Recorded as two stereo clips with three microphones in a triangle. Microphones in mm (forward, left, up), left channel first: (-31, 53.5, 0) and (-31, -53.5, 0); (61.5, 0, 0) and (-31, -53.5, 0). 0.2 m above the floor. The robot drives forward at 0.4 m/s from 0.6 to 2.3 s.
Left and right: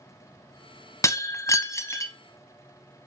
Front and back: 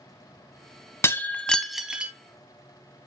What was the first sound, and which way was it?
Breaking glass, 70° left.